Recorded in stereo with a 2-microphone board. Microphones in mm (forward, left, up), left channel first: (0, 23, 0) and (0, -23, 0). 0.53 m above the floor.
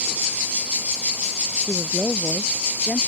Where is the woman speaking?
20° right (ahead or behind); by 3.1 s 15° right (ahead or behind).